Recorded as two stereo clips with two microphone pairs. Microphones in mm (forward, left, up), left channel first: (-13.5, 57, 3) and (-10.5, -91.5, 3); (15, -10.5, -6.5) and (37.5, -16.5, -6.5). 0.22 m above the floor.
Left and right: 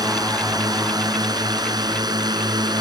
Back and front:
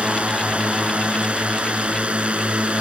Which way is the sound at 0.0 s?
30° right.